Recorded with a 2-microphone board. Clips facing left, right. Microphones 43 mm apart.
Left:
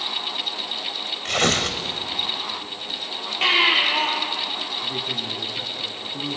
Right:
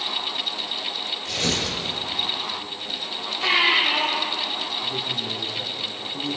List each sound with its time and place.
1.2 s tearing paper: 60° left (ahead or behind), 2.5 m
3.4 s a baby crying: 55° left (ahead or behind), 10 m
4.8 s a man speaking: 25° left (ahead or behind), 4 m